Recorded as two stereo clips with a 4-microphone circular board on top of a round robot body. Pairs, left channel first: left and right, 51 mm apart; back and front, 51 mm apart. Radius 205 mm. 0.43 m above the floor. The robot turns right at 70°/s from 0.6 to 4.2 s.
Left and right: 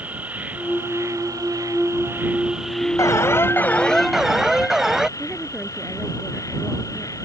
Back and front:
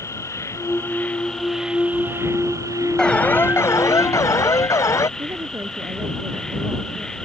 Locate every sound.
0.0 s an insect: 150° right; by 7.3 s 100° left
3.0 s an alarm: 105° left; by 5.1 s 170° right
5.2 s a woman speaking: 10° right